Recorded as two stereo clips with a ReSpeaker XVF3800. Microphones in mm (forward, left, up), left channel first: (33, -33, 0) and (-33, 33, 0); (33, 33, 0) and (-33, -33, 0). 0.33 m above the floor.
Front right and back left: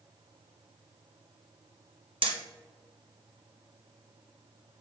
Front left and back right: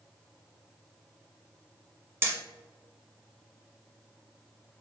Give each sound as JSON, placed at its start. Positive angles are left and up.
{"t": 2.2, "sound": "hammering", "azimuth_deg": 160, "distance_m": 0.6}